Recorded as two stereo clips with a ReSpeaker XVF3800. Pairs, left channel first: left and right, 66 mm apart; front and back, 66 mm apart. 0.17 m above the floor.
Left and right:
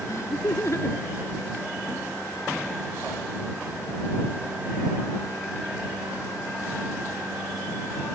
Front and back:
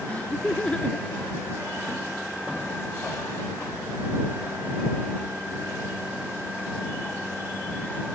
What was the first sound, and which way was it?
Laughter, 65° left.